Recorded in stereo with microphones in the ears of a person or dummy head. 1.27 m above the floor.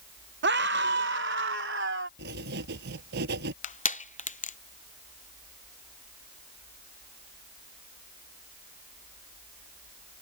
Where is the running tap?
I don't hear a running tap.